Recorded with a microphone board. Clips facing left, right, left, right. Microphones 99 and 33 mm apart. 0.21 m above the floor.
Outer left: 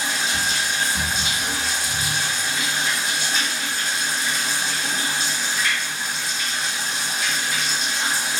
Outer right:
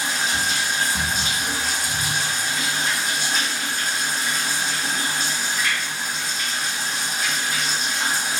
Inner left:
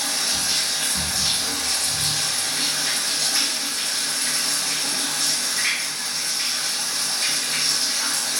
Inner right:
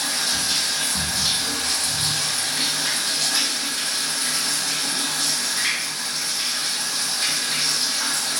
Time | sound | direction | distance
0.0 | running water | 45° right (ahead or behind) | 1.3 m